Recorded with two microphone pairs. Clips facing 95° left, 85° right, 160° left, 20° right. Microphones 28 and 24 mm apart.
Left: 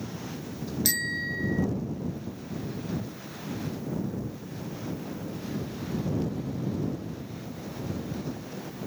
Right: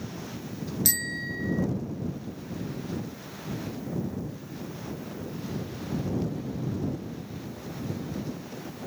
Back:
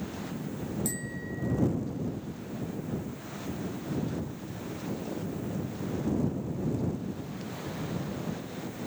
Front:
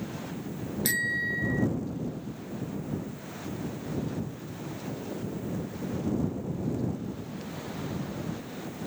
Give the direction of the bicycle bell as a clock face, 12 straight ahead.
12 o'clock.